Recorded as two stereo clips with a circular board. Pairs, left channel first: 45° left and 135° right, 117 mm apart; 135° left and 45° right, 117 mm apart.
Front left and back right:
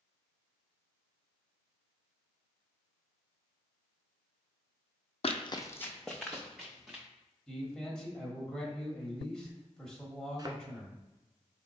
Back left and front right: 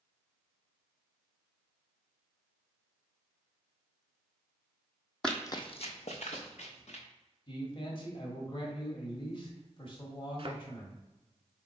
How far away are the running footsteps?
About 0.5 m.